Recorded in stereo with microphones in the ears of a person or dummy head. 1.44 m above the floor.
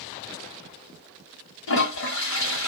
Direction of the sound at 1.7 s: 75° left (ahead or behind).